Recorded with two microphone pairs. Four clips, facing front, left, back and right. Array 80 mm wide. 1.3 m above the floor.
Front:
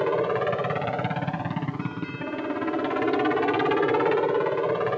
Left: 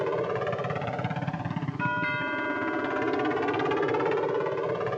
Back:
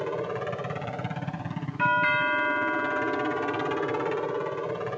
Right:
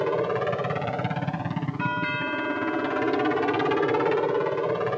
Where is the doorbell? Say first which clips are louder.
Even, back 9 dB; straight behind.